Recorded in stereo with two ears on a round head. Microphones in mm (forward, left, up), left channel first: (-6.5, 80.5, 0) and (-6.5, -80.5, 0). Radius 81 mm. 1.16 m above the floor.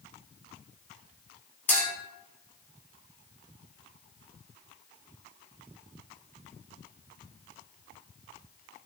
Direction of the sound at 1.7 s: 10° left (ahead or behind).